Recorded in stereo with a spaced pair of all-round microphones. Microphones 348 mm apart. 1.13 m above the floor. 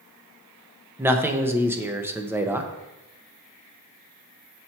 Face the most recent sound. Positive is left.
turn(degrees=-5)  # may be behind; listen again after turning